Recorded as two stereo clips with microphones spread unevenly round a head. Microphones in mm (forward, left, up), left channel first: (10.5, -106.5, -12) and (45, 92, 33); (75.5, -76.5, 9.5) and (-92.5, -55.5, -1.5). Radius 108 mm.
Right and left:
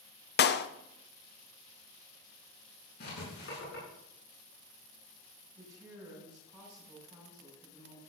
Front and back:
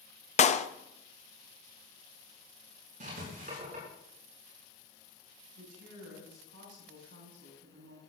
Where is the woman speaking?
155° left, 7 m.